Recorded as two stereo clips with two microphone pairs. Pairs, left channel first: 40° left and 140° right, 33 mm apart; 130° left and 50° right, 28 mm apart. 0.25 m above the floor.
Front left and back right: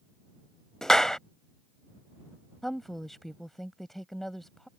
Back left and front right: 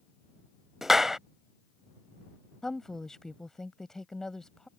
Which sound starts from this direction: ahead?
A clap, at 0.8 s.